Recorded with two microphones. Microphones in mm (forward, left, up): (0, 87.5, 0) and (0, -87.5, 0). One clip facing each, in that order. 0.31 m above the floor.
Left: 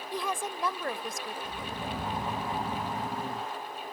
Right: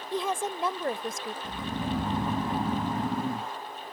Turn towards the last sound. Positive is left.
turn(degrees=-55)  # may be behind; listen again after turning